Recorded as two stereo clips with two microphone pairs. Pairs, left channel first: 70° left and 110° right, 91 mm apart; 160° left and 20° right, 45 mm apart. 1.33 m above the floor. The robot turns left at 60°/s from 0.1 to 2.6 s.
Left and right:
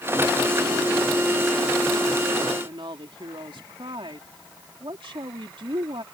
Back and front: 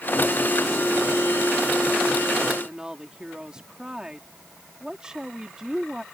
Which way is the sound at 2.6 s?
90° right.